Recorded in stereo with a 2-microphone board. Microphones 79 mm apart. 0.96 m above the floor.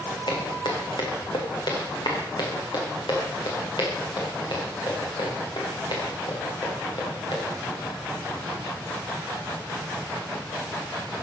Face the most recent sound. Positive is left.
turn(degrees=70)  # may be behind; listen again after turning